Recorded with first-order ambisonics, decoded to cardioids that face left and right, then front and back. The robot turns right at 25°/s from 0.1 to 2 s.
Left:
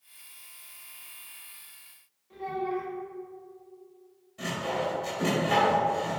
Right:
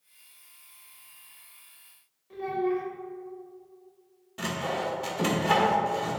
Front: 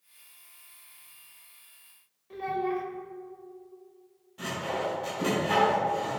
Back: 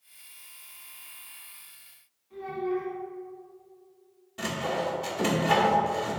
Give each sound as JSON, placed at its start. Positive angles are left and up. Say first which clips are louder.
{"t": 2.3, "sound": "a child speaking", "louder": "right 3 dB, front 1 dB", "azimuth_deg": -20, "distance_m": 1.2}
{"t": 4.4, "sound": "sawing", "louder": "even, back 2 dB", "azimuth_deg": -120, "distance_m": 1.6}